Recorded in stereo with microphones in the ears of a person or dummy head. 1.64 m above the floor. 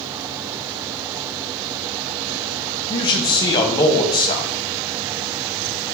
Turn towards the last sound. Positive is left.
turn(degrees=25)  # may be behind; listen again after turning